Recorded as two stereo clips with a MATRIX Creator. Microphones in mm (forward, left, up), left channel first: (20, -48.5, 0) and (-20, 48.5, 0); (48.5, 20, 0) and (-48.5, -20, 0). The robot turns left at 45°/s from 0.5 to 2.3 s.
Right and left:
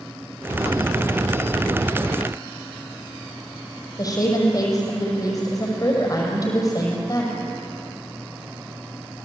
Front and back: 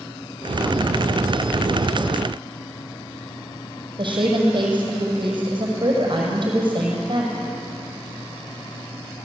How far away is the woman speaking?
About 5.5 m.